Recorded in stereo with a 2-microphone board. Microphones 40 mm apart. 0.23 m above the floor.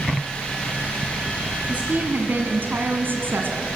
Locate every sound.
1.7 s a woman speaking: 40° right (ahead or behind), 1.7 m; by 3.7 s 60° right (ahead or behind), 1.9 m